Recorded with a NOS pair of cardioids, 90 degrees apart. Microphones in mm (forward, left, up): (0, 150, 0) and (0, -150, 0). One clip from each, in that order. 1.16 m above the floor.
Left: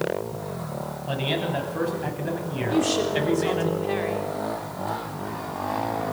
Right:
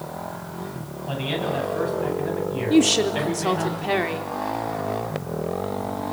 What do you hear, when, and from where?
1.1 s a man speaking: 15° left, 9.5 m
2.7 s a woman speaking: 55° right, 4 m